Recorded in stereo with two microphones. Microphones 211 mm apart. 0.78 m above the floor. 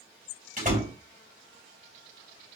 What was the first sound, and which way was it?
A door slam, 40° right (ahead or behind).